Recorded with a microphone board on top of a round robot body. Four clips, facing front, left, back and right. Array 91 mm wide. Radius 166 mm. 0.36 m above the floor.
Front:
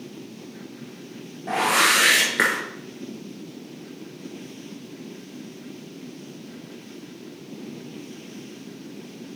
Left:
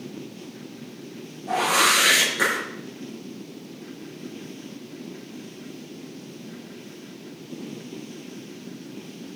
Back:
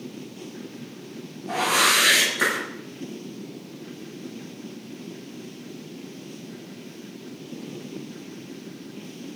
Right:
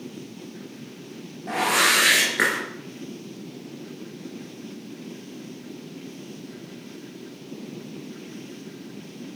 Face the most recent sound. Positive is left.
turn(degrees=-25)